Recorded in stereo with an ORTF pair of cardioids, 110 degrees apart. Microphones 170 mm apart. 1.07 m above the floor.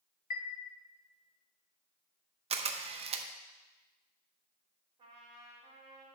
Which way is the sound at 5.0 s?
30° right.